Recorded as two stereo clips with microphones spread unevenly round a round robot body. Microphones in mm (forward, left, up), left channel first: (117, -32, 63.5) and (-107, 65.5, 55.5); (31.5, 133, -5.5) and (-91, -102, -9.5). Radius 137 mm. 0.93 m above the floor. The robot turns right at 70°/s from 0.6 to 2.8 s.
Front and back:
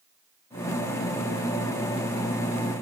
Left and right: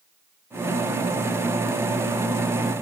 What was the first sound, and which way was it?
Only background noise.